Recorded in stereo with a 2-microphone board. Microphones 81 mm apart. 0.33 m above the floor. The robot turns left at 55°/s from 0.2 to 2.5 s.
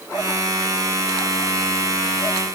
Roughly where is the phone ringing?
No phone ringing in this recording.